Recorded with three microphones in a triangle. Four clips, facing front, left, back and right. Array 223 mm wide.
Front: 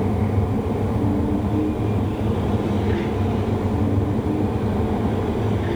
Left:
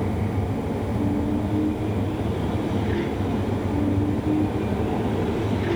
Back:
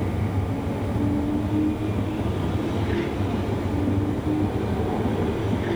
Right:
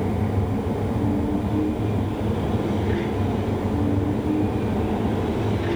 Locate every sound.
Only background noise.